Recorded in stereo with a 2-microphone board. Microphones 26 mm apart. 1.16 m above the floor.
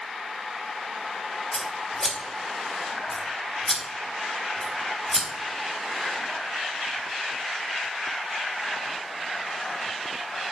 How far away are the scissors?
About 1.3 m.